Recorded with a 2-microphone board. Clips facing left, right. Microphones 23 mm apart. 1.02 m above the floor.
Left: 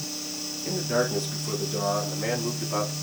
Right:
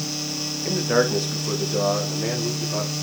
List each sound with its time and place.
0.7 s a man speaking: 40° right (ahead or behind), 1.2 m; by 2.9 s 30° left (ahead or behind), 1.1 m